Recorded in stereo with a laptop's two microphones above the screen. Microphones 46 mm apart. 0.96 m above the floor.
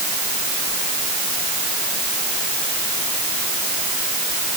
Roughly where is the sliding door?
I don't hear a sliding door.